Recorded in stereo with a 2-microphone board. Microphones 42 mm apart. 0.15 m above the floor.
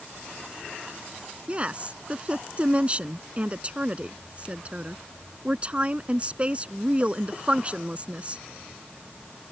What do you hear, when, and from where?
1.5 s a woman speaking: 30° right (ahead or behind)